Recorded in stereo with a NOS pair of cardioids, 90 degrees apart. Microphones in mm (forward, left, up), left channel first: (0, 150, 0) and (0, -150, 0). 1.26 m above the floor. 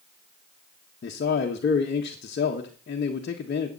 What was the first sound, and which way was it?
A man speaking, 35° left.